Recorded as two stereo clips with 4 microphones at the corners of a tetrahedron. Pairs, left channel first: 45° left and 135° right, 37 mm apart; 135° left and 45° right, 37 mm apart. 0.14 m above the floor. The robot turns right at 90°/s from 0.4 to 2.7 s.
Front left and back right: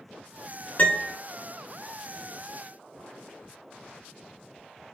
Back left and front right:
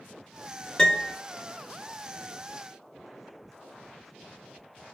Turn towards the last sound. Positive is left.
turn(degrees=-120)